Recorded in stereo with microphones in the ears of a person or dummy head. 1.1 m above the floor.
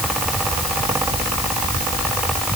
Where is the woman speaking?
I don't hear a woman speaking.